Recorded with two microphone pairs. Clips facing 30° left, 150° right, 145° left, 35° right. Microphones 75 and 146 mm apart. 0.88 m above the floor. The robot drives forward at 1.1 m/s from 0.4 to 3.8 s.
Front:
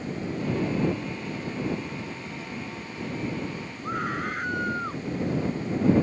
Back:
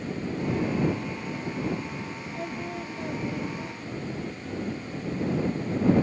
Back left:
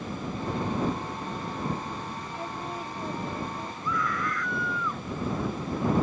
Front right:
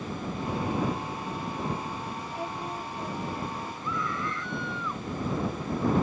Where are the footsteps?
No footsteps in this recording.